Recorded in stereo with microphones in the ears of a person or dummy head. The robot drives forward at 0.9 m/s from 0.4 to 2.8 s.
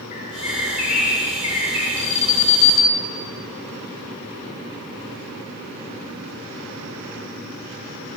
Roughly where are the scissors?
No scissors in this recording.